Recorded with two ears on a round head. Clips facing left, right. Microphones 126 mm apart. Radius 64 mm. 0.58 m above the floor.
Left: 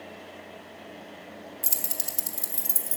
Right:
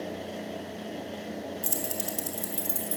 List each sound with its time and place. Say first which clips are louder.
1.6 s keys jangling: right 7 dB; 10° left (ahead or behind), 1.3 m